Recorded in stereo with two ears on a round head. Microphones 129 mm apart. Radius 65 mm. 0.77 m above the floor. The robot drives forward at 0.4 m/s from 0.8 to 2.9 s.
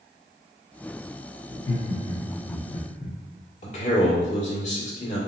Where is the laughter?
30° left (ahead or behind), 0.9 m; by 3.2 s 40° left (ahead or behind), 0.7 m.